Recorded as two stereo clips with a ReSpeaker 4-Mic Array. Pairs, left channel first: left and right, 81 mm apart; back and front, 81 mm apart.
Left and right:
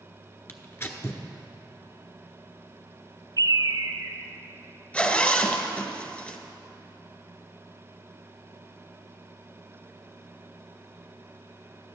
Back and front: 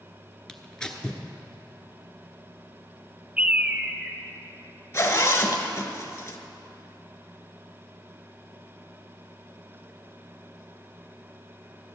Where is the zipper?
150° left, 1.0 m.